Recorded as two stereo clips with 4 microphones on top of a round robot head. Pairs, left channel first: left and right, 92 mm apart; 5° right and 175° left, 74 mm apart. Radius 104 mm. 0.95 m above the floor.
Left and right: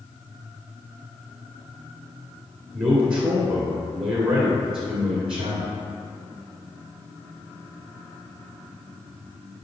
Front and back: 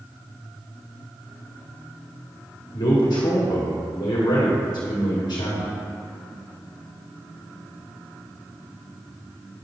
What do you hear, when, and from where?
2.7 s a man speaking: 5° right, 2 m